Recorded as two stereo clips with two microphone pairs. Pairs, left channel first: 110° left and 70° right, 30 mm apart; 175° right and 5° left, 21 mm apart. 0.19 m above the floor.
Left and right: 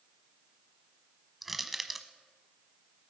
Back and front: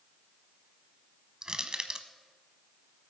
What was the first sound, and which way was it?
Crushing, 10° left.